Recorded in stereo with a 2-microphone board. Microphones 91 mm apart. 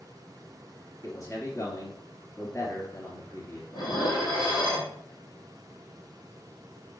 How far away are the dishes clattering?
About 3 m.